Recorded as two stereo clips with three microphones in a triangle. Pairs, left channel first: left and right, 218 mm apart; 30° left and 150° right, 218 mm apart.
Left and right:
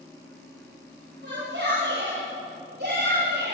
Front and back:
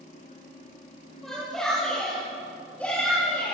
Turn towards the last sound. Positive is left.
turn(degrees=-50)